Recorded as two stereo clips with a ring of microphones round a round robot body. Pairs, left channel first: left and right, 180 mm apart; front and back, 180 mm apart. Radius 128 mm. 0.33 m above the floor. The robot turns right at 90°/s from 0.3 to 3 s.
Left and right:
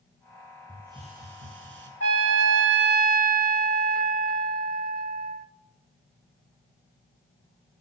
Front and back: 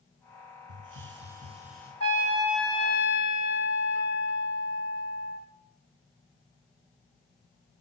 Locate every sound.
0.7 s a hiss: 175° left, 5.5 m; by 1.9 s 75° right, 5.5 m
2.0 s a trumpet: 140° right, 1.2 m; by 5.5 s 50° right, 1.2 m